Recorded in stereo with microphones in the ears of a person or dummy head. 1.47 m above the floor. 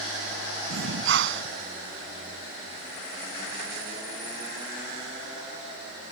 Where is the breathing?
75° right (ahead or behind).